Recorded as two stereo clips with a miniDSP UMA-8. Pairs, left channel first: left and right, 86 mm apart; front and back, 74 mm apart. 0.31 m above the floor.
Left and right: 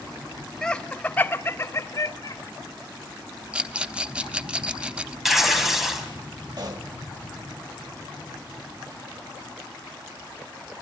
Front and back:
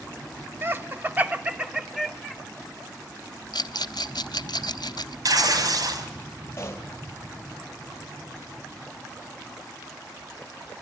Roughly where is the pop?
Ahead right.